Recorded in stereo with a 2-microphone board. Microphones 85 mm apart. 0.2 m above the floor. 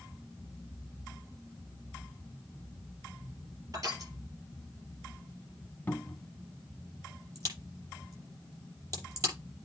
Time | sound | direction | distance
3.7 | crushing | 45° right (ahead or behind) | 3.5 m
5.9 | a cupboard door | 20° left (ahead or behind) | 1.1 m
7.3 | a crack | 40° right (ahead or behind) | 6 m